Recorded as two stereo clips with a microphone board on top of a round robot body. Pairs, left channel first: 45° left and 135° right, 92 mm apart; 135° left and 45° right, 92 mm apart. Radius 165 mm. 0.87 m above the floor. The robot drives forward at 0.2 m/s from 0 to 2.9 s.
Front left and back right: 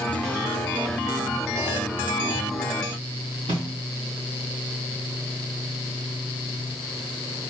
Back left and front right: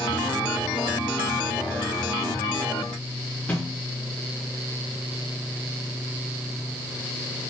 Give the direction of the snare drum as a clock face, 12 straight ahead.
5 o'clock.